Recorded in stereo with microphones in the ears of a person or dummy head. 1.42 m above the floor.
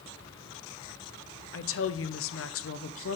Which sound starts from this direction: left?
A woman speaking, at 1.5 s.